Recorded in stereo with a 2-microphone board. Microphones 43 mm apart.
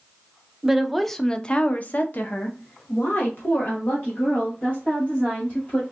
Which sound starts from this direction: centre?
A woman speaking, at 0.6 s.